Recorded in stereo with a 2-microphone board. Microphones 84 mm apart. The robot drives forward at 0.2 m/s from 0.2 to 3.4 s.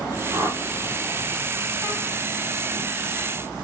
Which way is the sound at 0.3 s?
30° right (ahead or behind).